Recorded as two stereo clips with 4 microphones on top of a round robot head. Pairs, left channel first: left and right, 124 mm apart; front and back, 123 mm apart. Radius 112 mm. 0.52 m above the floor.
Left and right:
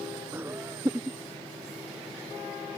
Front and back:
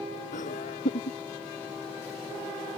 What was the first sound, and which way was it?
Laughter, 15° right.